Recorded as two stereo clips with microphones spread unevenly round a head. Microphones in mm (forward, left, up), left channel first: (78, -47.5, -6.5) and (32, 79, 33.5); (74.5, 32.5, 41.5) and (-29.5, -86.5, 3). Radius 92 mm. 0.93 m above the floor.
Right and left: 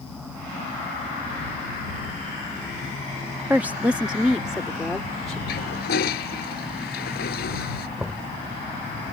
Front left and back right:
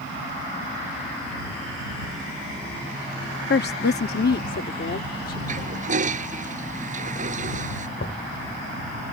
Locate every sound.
3.5 s a woman speaking: 30° left; by 5.4 s 15° left
5.5 s a toilet flushing: 90° right
8.0 s knocking: 35° left